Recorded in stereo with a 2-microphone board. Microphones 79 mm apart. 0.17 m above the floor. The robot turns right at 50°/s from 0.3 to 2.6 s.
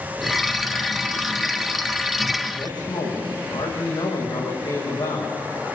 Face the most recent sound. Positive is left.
turn(degrees=60)  # may be behind; listen again after turning